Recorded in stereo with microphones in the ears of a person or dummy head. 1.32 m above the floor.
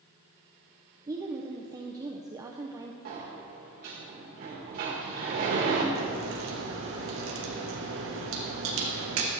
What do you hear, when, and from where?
1.1 s a woman speaking: 20° right (ahead or behind), 0.5 m
3.0 s a sliding door: 45° right (ahead or behind), 1.3 m
6.0 s a crack: 70° right (ahead or behind), 1.4 m